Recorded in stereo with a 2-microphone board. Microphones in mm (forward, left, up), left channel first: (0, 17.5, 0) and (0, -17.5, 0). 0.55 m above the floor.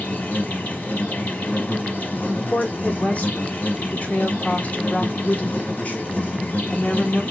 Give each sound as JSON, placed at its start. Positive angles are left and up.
{"t": 0.0, "sound": "an insect", "side_deg": 50, "distance_m": 1.0}
{"t": 2.3, "sound": "a woman speaking", "side_deg": 45, "distance_m": 1.2}